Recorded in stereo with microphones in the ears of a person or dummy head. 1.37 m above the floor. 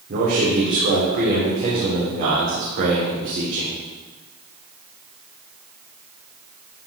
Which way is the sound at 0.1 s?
40° right (ahead or behind).